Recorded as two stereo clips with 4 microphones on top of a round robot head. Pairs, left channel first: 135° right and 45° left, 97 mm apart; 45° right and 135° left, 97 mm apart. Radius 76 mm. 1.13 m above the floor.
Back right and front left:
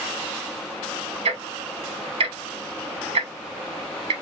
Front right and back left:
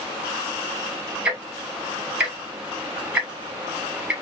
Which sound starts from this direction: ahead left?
Ticking, at 1.2 s.